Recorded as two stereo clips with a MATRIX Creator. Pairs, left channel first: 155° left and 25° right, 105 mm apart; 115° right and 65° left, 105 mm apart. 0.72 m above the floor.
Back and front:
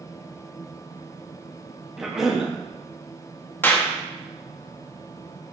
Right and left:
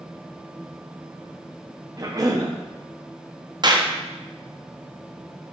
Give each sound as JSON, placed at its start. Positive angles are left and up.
{"t": 2.0, "sound": "a cough", "azimuth_deg": 60, "distance_m": 0.7}
{"t": 3.6, "sound": "a clap", "azimuth_deg": 90, "distance_m": 0.5}